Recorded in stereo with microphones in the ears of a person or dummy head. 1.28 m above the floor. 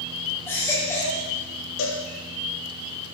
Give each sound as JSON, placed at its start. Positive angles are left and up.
{"t": 0.5, "sound": "a baby crying", "side_deg": 15, "distance_m": 3.0}
{"t": 1.8, "sound": "a cowbell", "side_deg": 70, "distance_m": 3.0}